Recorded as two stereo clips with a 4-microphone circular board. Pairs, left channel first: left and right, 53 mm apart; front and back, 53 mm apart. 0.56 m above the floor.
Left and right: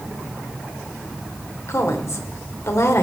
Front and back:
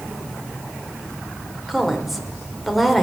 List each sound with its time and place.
1.7 s a woman speaking: 95° left, 1.6 m